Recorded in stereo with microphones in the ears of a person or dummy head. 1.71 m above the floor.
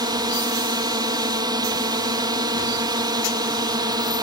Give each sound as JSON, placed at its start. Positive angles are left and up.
{"t": 0.0, "sound": "a drone", "side_deg": -15}